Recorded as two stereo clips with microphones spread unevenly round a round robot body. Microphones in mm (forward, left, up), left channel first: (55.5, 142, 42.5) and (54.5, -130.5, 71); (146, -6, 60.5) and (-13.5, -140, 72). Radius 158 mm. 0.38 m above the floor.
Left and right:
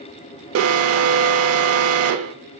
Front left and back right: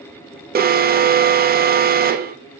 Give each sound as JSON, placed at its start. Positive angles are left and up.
{"t": 0.6, "sound": "an alarm", "azimuth_deg": -105, "distance_m": 0.7}